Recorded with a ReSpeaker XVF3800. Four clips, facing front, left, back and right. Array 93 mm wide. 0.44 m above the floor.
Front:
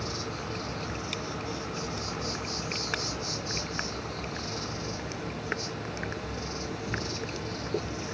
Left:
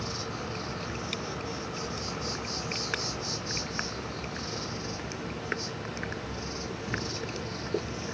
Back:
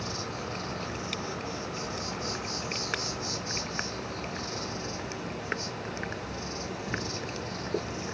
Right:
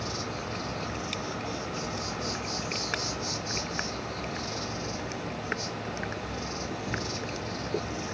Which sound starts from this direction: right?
An insect, at 0.0 s.